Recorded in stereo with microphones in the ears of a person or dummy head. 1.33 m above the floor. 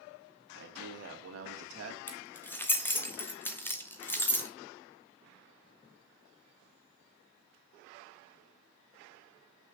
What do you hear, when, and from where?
0.6 s a man speaking: 65° right (ahead or behind), 2.5 m; by 2.0 s 85° right, 1.8 m
2.1 s keys jangling: 5° left (ahead or behind), 0.8 m